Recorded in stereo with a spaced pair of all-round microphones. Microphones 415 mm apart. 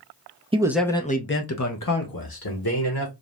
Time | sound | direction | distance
0.5 | a man speaking | 15° right (ahead or behind) | 0.5 m